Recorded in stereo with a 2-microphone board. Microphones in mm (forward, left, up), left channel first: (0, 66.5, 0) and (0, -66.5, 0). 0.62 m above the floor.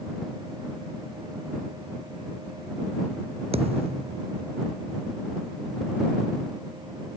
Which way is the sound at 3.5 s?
50° right (ahead or behind).